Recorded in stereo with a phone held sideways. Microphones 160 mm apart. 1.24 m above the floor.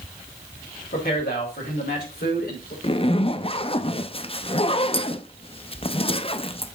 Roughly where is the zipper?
Left.